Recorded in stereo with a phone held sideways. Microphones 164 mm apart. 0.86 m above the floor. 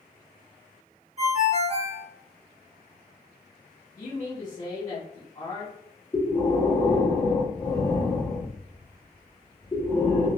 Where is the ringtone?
45° right (ahead or behind), 1.5 m.